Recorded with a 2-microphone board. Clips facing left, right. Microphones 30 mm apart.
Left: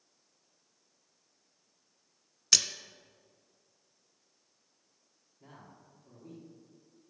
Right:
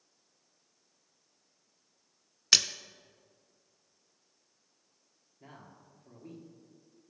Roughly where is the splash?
Right.